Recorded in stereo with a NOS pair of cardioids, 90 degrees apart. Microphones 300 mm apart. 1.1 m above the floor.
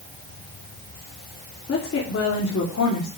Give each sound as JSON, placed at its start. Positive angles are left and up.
{"t": 1.7, "sound": "a woman speaking", "azimuth_deg": 45, "distance_m": 3.0}